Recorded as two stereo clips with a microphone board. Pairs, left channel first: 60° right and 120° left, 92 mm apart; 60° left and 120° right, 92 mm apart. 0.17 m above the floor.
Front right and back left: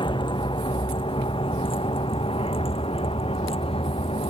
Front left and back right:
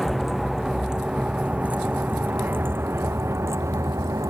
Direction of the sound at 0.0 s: 30° right.